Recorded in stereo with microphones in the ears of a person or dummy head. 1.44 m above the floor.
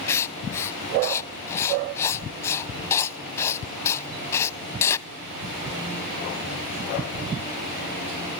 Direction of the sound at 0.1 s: 20° left (ahead or behind).